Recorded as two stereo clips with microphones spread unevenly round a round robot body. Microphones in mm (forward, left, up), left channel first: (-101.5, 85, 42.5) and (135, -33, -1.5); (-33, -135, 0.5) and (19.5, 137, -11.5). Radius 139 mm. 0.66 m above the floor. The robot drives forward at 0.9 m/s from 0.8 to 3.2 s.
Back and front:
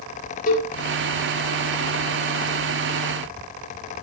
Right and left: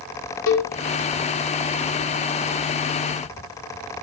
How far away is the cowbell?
About 2 m.